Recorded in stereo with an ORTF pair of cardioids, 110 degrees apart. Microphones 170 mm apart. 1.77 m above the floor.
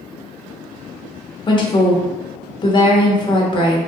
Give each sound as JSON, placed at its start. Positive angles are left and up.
{"t": 1.5, "sound": "a woman speaking", "azimuth_deg": 30, "distance_m": 1.0}